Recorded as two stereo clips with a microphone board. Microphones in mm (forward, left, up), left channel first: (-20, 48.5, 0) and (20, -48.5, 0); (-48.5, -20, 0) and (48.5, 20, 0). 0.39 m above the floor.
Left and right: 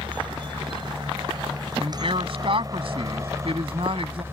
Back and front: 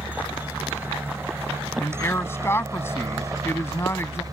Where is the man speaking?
95° right.